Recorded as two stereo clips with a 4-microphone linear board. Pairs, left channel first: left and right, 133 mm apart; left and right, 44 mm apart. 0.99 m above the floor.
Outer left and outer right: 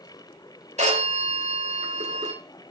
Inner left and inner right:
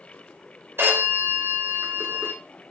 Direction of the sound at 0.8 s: 65° right (ahead or behind).